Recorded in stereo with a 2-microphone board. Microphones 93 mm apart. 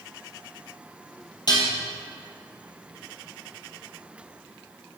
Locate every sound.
1.5 s dishes clattering: 45° left (ahead or behind), 2.5 m